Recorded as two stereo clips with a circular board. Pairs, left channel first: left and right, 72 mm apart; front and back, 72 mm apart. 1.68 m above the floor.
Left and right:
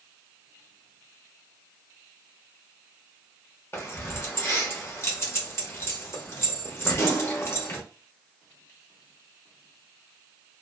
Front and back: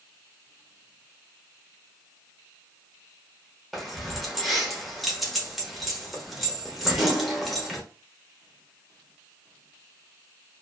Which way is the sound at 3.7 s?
90° left.